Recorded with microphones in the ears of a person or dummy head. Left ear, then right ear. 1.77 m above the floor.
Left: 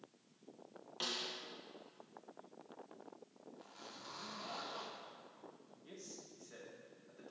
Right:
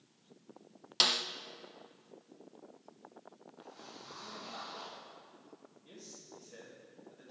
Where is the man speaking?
45° left (ahead or behind), 3.5 m.